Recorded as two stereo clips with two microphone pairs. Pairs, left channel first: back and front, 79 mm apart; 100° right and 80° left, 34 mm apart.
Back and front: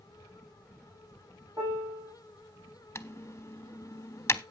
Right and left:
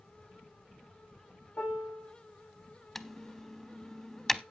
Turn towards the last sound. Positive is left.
turn(degrees=180)